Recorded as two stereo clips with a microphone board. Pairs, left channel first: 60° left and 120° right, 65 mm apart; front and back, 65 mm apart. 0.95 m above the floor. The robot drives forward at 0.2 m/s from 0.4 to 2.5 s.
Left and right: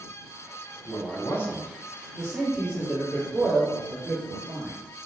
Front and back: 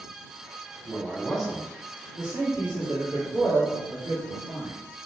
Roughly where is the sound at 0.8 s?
Left.